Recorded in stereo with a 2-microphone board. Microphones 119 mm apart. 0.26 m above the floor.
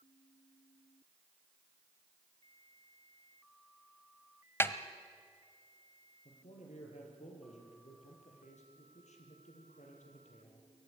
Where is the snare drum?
20° left (ahead or behind), 1.0 m.